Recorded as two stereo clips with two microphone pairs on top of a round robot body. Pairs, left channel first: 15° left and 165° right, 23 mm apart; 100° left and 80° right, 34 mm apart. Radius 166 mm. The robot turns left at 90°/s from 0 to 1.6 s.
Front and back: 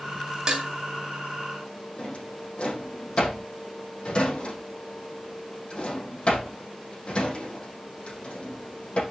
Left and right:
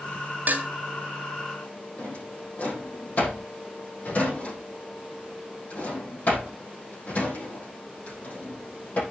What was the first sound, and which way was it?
Dishes clattering, 110° right.